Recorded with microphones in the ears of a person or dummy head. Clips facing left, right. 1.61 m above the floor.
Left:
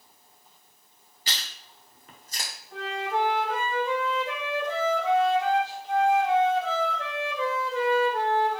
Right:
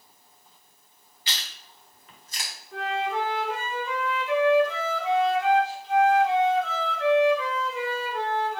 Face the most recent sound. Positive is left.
turn(degrees=40)  # may be behind; listen again after turning